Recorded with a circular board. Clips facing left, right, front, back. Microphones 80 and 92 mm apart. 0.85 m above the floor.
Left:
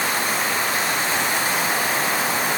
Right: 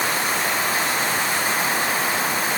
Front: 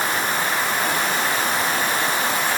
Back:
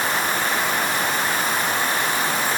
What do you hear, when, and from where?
Only background noise.